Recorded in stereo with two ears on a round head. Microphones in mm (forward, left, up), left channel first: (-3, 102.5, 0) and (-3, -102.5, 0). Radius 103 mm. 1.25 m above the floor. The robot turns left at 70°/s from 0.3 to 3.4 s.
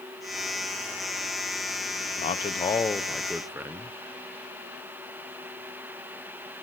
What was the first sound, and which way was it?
A man speaking, 70° left.